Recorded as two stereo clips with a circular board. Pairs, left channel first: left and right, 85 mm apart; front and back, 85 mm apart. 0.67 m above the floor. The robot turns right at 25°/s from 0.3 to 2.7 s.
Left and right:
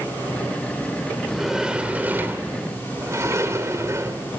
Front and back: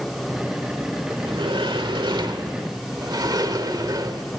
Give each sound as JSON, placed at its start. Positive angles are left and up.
{"t": 1.2, "sound": "a sliding door", "azimuth_deg": 180, "distance_m": 1.5}